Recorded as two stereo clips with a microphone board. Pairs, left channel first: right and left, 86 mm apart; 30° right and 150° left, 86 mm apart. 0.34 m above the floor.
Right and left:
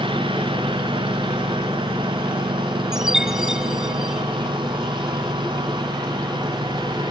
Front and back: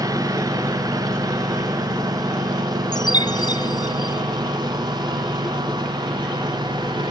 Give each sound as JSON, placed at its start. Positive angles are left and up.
{"t": 0.0, "sound": "a lawn mower", "azimuth_deg": 105}
{"t": 2.9, "sound": "a chime", "azimuth_deg": 5}